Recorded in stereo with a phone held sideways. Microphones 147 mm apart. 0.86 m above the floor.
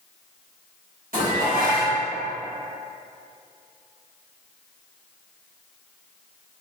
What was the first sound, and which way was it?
Dishes clattering, 80° right.